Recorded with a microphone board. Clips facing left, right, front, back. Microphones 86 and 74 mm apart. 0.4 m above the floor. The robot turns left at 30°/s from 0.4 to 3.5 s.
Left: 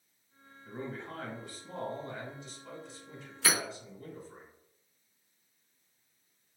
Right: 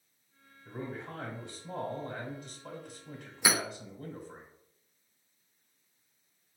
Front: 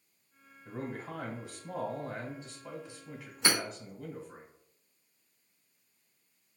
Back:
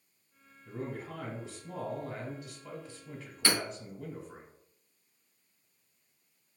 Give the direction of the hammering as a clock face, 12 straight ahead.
1 o'clock.